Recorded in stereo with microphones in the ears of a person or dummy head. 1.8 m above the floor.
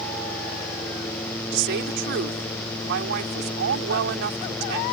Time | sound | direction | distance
1.5 | a woman speaking | 65° right (ahead or behind) | ?